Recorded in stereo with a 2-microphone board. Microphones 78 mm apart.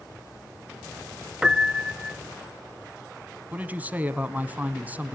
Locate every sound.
1.4 s a piano: 10° right (ahead or behind), 0.6 m
3.5 s a woman speaking: 20° right (ahead or behind), 1.1 m